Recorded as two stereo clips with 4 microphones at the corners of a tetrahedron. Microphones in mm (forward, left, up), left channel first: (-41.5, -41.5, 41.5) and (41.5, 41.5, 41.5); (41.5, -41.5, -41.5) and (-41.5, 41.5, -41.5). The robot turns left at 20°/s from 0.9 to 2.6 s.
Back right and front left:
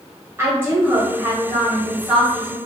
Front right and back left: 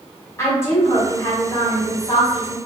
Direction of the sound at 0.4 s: 5° right.